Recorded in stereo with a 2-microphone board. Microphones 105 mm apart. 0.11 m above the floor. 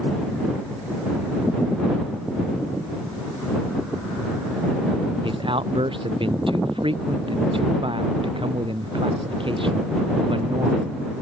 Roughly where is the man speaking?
Right.